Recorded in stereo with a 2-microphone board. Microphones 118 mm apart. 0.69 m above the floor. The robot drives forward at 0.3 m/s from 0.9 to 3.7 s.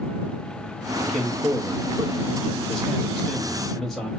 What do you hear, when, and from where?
1.0 s a man speaking: 5° left (ahead or behind), 0.7 m